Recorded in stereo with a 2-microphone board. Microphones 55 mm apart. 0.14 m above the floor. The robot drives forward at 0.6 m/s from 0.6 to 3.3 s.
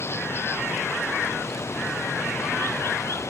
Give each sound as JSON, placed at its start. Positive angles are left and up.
{"t": 0.0, "sound": "running water", "side_deg": 50}